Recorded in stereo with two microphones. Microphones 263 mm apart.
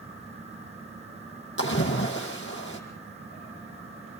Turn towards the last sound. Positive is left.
turn(degrees=50)  # may be behind; listen again after turning